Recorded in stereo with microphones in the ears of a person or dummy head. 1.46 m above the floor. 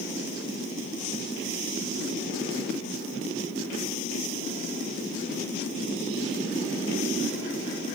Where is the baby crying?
No baby crying in this recording.